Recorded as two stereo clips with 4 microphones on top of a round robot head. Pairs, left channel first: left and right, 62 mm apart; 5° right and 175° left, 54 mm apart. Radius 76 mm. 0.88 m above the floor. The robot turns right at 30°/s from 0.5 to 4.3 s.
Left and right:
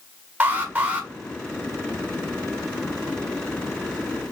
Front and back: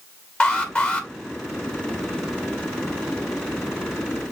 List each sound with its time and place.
0.4 s an alarm: 55° right, 1.2 m; by 1.1 s 40° right, 1.2 m